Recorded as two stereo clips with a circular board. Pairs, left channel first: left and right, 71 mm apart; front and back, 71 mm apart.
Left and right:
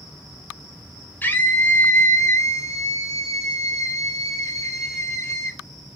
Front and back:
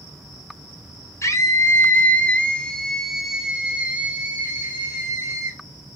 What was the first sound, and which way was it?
A scream, 30° left.